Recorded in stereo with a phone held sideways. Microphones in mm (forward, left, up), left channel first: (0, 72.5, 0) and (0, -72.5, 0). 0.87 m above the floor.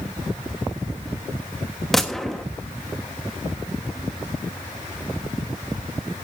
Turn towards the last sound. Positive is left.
turn(degrees=0)  # may be behind; listen again after turning